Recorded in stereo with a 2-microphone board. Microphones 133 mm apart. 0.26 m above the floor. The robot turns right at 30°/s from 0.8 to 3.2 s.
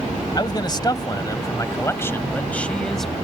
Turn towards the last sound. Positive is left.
turn(degrees=180)